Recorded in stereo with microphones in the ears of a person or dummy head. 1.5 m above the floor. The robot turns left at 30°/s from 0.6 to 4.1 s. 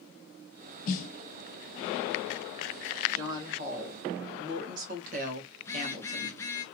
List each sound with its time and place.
0.9 s a snare drum: 55° left (ahead or behind), 0.6 m; by 1.1 s 45° left (ahead or behind), 0.6 m
3.1 s a woman speaking: 15° right (ahead or behind), 2 m; by 6.4 s 45° right (ahead or behind), 2 m
5.6 s a phone buzzing: 15° left (ahead or behind), 0.6 m